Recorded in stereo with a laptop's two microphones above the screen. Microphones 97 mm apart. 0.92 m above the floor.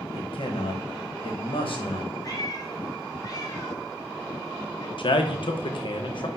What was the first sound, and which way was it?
A man speaking, 65° left (ahead or behind).